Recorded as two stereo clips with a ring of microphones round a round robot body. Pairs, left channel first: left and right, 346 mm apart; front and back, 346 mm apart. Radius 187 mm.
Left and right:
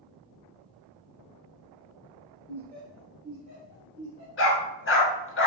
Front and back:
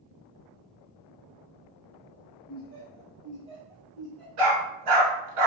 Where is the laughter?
165° left, 1.4 m; by 4.3 s 85° right, 1.4 m.